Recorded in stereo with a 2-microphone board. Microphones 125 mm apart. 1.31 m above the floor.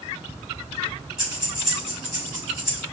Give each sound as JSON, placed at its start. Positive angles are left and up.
{"t": 1.2, "sound": "breathing", "side_deg": -5, "distance_m": 1.7}